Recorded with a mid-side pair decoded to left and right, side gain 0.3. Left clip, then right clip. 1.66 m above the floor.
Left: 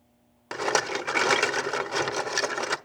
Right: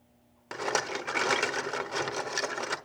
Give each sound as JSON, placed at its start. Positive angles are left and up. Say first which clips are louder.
{"t": 0.5, "sound": "a rattle", "louder": "left 5 dB", "azimuth_deg": 45, "distance_m": 1.1}